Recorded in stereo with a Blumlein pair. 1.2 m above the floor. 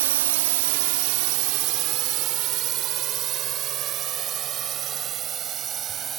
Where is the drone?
55° right; by 6.2 s 25° right.